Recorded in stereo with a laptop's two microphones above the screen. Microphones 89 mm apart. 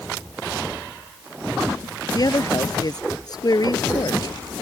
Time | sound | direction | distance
2.1 | a woman speaking | 45° left (ahead or behind) | ?